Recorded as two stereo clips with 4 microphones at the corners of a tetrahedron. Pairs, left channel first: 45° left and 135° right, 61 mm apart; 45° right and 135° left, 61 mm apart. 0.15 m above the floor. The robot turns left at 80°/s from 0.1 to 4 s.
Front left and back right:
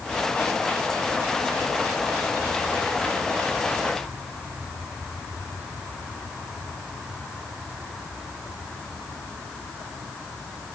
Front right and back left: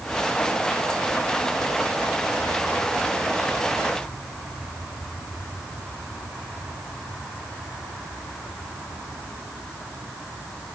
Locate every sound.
Only background noise.